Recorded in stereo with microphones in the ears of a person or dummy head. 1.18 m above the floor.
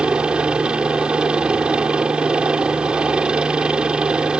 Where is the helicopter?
10° right (ahead or behind).